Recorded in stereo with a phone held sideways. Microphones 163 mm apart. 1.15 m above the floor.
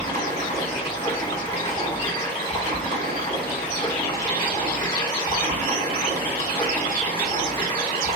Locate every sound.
0.0 s running water: 30° left (ahead or behind), 1.5 m